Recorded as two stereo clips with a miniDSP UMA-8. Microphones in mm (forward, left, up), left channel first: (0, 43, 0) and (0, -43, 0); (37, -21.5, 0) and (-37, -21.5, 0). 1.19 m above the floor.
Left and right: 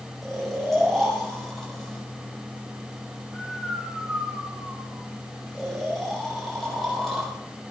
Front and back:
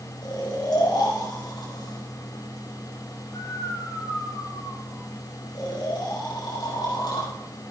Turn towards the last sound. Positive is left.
turn(degrees=5)